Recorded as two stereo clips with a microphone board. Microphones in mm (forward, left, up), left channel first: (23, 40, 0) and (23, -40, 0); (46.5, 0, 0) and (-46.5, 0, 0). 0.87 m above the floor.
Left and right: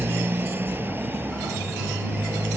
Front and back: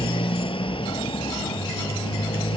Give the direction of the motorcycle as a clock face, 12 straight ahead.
1 o'clock.